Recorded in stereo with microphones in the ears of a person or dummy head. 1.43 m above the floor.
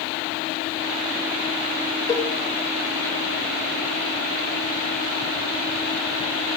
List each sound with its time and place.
2.1 s a cowbell: 25° left (ahead or behind), 3 m